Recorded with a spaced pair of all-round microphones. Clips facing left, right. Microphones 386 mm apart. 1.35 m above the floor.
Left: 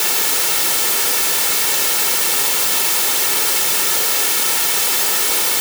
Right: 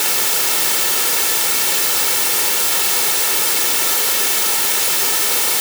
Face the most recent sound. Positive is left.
No sound to turn to.